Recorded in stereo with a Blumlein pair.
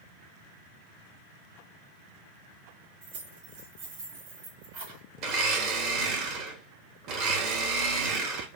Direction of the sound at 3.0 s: 50° right.